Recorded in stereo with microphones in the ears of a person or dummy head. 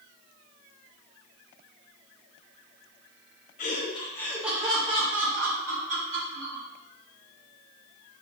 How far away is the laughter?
About 0.7 m.